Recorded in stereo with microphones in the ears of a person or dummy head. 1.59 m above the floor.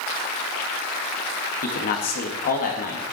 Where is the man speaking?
45° left (ahead or behind), 2 m.